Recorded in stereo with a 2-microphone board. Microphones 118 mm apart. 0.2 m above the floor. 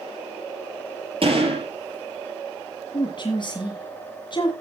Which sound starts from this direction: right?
A gunshot, at 1.2 s.